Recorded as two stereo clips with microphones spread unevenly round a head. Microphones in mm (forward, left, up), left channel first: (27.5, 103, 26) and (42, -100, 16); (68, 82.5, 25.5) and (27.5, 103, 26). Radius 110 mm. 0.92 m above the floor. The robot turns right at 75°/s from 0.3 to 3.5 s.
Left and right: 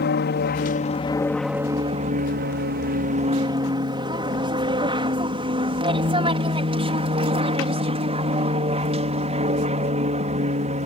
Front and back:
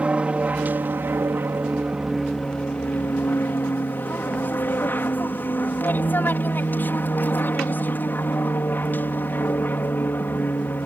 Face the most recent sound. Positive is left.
turn(degrees=-45)